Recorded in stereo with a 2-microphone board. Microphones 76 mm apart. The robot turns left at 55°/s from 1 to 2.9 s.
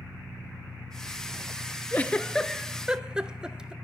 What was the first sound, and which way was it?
An engine running, 115° right.